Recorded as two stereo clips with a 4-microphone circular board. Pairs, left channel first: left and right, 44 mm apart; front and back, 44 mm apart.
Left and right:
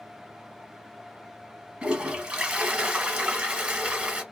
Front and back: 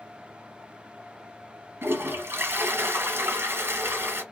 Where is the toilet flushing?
155° right, 0.9 m.